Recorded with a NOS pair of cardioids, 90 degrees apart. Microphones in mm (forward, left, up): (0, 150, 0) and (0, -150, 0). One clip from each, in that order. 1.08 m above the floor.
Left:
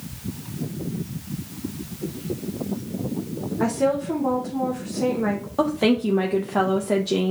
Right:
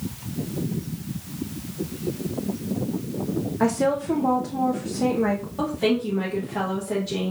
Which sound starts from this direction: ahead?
A woman speaking, at 3.6 s.